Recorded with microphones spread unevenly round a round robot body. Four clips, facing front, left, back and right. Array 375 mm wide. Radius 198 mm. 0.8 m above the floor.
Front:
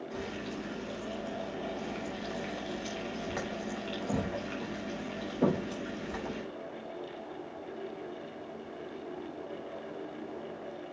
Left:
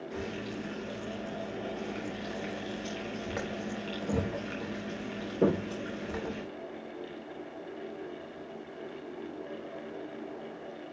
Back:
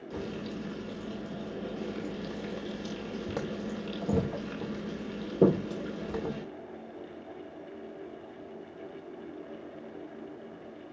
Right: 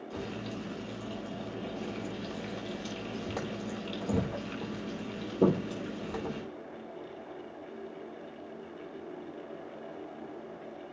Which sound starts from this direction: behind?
Frying, at 0.1 s.